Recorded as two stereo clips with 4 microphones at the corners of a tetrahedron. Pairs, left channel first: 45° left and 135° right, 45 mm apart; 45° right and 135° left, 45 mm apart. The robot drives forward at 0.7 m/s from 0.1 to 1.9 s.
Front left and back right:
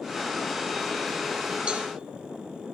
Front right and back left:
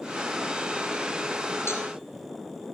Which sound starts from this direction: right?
A cowbell, at 1.7 s.